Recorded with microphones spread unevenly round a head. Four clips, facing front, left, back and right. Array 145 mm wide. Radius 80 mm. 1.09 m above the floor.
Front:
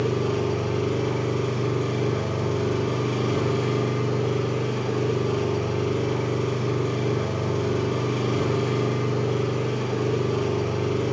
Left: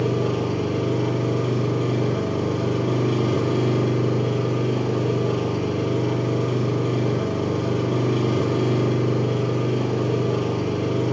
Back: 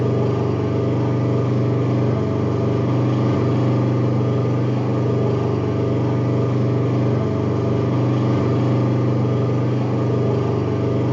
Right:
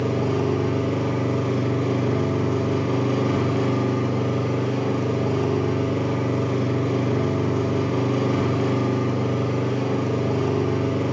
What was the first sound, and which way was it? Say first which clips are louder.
An engine running: even, back 4 dB; 170° right.